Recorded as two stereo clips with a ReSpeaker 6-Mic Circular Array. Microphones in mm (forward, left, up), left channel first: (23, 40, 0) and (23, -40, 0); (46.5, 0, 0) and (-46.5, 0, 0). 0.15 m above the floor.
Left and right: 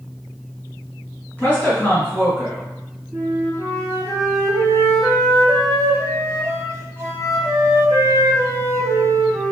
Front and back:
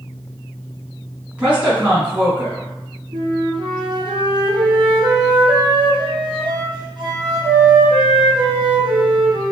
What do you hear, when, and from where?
1.4 s a woman speaking: 125° left, 1.7 m
3.1 s a flute: 145° right, 1.0 m